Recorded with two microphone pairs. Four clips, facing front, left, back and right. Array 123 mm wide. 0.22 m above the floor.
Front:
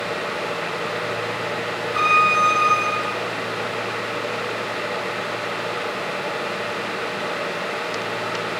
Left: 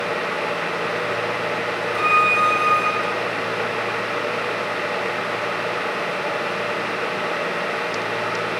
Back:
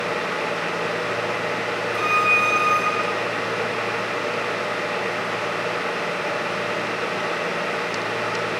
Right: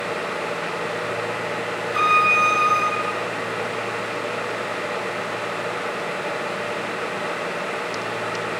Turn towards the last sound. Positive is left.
turn(degrees=-50)